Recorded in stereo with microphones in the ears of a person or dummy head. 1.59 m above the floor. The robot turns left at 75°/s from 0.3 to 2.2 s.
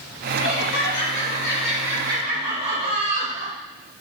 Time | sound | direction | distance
0.4 | laughter | 105° left | 2.0 m